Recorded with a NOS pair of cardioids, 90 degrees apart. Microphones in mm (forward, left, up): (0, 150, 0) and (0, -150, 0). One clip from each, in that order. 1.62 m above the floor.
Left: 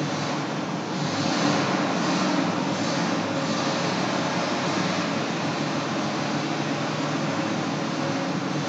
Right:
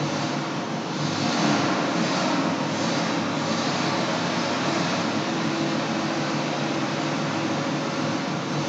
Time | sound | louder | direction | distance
0.0 | an engine running | right 1 dB | 15° right | 0.8 m